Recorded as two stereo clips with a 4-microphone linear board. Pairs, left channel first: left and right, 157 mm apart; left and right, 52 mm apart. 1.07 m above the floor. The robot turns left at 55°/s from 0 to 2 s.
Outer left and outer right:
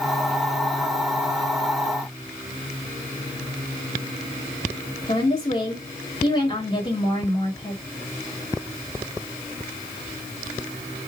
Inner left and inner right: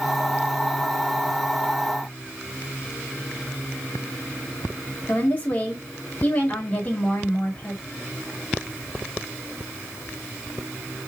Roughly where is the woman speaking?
Left.